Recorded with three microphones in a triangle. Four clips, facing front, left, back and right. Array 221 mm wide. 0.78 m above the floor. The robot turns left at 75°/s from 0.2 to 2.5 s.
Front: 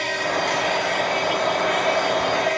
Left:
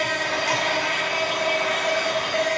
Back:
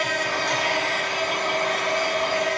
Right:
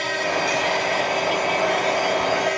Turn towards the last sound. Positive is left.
turn(degrees=-25)